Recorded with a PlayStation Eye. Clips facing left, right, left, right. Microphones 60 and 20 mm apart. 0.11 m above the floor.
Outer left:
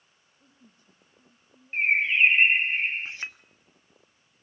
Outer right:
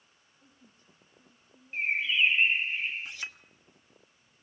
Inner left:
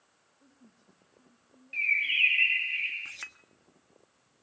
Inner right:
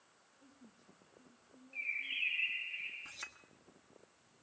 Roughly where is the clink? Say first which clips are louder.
Outer left 3 dB, inner left 6 dB; left.